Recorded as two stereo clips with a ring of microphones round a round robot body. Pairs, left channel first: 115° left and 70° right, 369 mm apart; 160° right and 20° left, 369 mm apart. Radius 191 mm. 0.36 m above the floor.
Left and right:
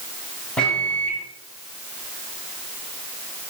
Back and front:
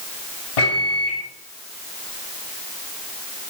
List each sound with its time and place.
0.6 s a microwave: 160° right, 3 m